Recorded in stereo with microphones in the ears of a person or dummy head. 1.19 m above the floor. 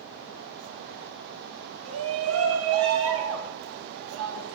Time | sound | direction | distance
1.9 | a shout | 75° right (ahead or behind) | 3 m